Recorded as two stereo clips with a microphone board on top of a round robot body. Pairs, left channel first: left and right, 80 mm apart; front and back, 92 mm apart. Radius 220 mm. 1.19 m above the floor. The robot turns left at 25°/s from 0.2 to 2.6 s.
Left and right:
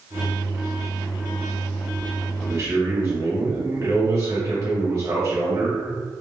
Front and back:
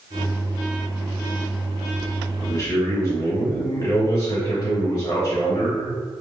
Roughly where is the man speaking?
Ahead right.